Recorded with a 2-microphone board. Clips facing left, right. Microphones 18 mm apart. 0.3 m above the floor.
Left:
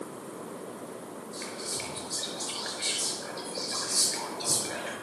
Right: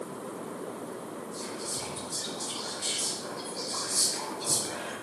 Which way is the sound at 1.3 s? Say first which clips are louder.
Left 2 dB; 75° left (ahead or behind).